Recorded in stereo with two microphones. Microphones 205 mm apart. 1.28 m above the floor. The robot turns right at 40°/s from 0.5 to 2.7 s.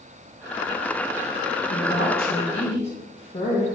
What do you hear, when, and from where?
1.7 s a woman speaking: 110° left, 2.0 m; by 3.6 s 150° left, 2.0 m